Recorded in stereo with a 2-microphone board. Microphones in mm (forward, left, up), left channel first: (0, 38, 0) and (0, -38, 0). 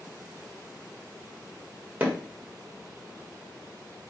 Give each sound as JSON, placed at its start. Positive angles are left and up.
{"t": 2.0, "sound": "hammering", "side_deg": -20, "distance_m": 1.4}